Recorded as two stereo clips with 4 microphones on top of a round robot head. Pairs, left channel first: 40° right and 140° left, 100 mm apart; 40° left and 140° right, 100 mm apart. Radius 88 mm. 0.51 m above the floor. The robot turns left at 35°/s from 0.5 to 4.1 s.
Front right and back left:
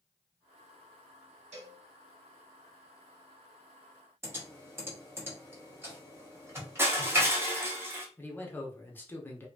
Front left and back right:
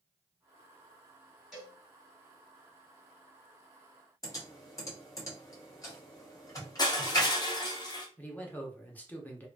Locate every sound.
1.5 s a cowbell: 130° left, 1.7 m; by 1.8 s 120° left, 1.7 m
4.2 s typing on a keyboard: 85° left, 1.6 m
6.8 s crushing: 80° left, 0.9 m
8.2 s a man speaking: 5° right, 0.9 m